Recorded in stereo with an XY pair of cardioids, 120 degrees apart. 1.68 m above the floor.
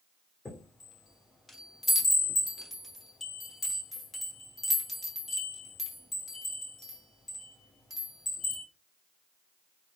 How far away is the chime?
About 1.3 m.